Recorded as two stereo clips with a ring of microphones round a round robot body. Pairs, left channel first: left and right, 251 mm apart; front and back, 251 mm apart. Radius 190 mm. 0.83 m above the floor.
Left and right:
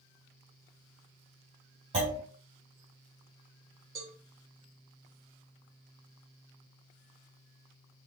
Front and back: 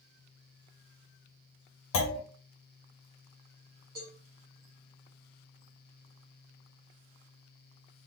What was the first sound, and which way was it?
A clunk, 15° right.